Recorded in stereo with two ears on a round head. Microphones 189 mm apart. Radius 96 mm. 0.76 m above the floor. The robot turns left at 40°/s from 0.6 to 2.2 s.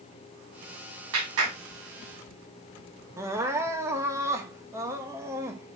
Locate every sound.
1.1 s a clap: 80° right, 6 m; by 1.6 s 65° right (ahead or behind), 6 m
3.2 s crying: 15° right (ahead or behind), 1.1 m